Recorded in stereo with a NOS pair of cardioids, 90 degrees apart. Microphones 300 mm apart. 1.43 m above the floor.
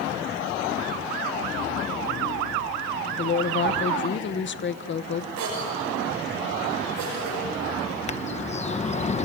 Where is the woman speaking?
40° left, 1.0 m.